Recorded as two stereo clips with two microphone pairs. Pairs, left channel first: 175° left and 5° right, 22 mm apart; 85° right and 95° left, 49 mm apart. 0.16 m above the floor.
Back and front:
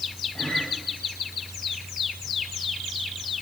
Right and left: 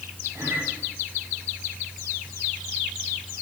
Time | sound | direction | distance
0.3 | a guitar | 110° left | 6 m